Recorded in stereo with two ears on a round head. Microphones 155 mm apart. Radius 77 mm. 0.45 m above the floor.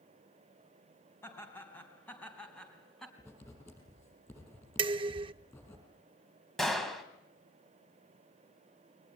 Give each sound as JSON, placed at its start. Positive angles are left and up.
{"t": 1.2, "sound": "laughter", "side_deg": 15, "distance_m": 4.0}
{"t": 3.2, "sound": "writing", "side_deg": 15, "distance_m": 6.0}
{"t": 4.8, "sound": "dishes clattering", "side_deg": -30, "distance_m": 0.5}
{"t": 6.6, "sound": "a gunshot", "side_deg": 0, "distance_m": 2.0}